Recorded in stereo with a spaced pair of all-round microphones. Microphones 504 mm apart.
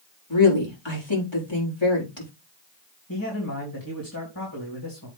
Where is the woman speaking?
60° left (ahead or behind), 4 m.